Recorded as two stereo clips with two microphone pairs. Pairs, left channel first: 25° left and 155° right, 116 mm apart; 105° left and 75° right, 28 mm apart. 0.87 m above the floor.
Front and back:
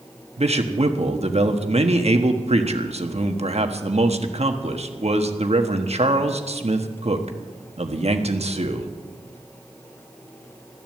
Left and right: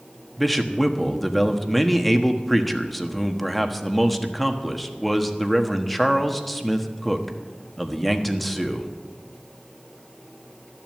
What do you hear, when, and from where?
0.4 s a man speaking: 170° right, 1.3 m